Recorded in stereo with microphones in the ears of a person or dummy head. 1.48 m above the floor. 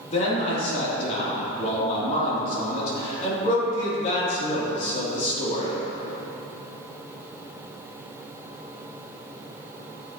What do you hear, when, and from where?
0.1 s a man speaking: 45° left (ahead or behind), 3 m